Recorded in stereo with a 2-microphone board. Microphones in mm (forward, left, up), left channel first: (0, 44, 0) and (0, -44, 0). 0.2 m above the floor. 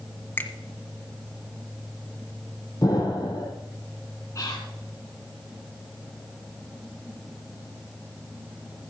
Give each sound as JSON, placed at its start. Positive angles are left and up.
{"t": 0.4, "sound": "a finger snap", "side_deg": 25, "distance_m": 1.6}
{"t": 2.8, "sound": "an explosion", "side_deg": 45, "distance_m": 4.5}
{"t": 4.3, "sound": "whispering", "side_deg": 35, "distance_m": 2.5}